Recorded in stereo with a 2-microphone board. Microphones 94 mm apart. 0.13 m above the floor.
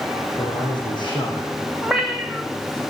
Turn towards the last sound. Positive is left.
turn(degrees=0)  # may be behind; listen again after turning